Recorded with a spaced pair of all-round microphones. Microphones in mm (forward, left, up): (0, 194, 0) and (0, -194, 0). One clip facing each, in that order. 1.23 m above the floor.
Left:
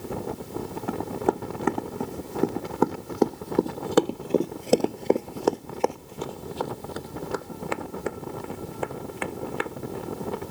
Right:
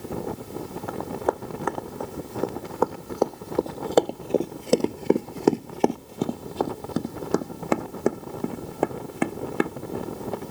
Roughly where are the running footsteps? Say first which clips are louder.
Left 2 dB; left.